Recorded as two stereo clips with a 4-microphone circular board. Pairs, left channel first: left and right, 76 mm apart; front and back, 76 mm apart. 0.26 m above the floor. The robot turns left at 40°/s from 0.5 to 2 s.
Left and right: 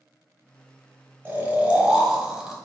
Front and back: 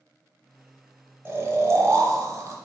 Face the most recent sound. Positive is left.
turn(degrees=-170)